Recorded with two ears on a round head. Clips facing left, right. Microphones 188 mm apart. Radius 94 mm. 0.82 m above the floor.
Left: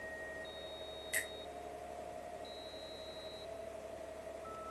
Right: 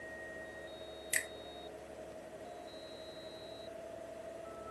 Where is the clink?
No clink in this recording.